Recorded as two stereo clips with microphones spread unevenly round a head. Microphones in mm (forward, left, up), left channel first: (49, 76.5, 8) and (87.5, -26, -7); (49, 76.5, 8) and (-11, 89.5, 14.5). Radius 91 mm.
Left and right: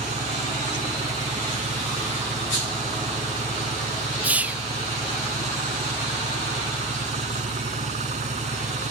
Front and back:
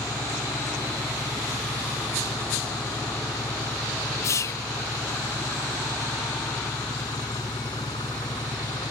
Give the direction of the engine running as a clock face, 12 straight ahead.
2 o'clock.